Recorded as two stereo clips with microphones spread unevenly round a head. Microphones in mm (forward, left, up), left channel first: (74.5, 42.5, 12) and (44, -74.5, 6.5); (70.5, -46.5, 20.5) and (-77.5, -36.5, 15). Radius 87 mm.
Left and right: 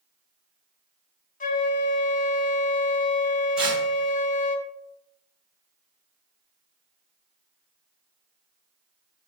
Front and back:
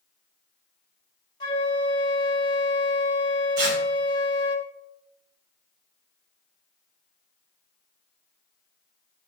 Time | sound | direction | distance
1.4 | a flute | 65° left | 0.9 m
3.6 | tearing paper | 170° left | 3 m